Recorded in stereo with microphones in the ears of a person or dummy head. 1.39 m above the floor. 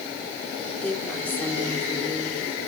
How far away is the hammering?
No hammering in this recording.